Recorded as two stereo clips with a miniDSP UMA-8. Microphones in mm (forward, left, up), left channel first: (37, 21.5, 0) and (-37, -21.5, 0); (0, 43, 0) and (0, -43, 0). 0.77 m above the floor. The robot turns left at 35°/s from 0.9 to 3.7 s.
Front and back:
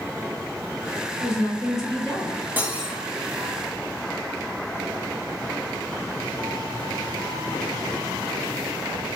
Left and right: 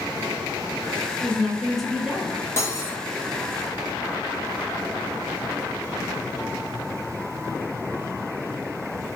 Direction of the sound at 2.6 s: 140° left.